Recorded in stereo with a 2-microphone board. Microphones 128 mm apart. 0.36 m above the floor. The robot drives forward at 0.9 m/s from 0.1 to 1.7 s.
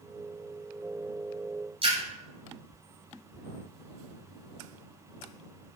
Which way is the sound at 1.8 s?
45° right (ahead or behind).